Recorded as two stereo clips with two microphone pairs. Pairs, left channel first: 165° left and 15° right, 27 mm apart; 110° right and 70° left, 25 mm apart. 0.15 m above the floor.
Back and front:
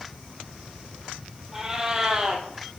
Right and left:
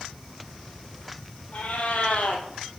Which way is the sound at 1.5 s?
90° right.